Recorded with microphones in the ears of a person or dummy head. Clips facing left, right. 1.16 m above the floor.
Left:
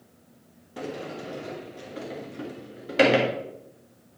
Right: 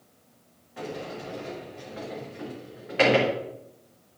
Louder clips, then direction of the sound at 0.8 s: Left 1 dB; 50° left (ahead or behind).